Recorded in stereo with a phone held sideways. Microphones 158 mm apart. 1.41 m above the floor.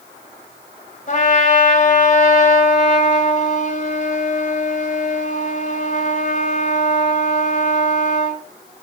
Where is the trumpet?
50° left (ahead or behind), 2.5 m.